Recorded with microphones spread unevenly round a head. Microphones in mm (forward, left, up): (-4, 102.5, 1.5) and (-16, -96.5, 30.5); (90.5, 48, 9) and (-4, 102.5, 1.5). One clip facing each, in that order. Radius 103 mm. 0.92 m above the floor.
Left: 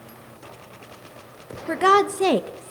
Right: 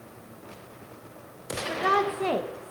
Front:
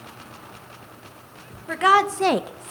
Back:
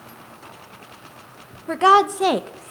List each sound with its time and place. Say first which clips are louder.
1.7 s a woman speaking: left 8 dB, back 3 dB; 95° left, 0.7 m; by 2.7 s 35° left, 0.5 m